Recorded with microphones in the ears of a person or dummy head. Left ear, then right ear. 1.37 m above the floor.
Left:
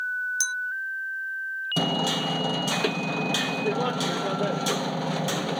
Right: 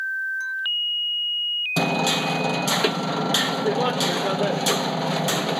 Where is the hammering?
5° right (ahead or behind).